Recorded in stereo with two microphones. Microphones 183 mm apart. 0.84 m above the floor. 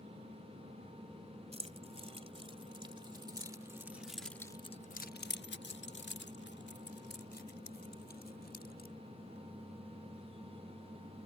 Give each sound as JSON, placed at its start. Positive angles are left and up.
{"t": 1.5, "sound": "keys jangling", "side_deg": -35}